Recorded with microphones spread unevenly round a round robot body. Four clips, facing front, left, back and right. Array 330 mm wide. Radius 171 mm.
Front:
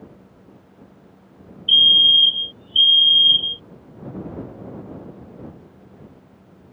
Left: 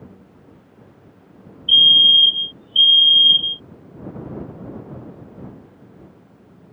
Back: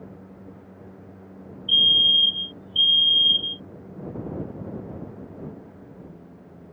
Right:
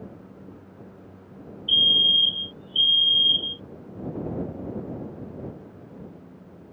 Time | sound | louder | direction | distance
1.7 | a fire alarm | left 7 dB, front 5 dB | 10° right | ?